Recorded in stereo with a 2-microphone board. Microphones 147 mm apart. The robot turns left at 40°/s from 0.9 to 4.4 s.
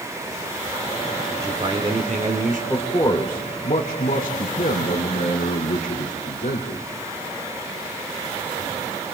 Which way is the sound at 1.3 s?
20° right.